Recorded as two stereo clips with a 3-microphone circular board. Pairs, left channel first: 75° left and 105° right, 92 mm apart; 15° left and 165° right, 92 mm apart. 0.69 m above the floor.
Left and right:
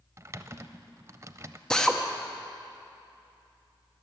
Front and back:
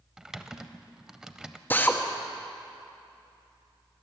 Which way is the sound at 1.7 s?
5° left.